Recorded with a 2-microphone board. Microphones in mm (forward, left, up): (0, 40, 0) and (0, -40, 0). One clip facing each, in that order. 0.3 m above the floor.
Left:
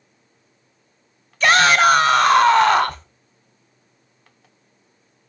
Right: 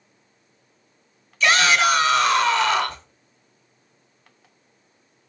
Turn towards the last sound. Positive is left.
turn(degrees=45)  # may be behind; listen again after turning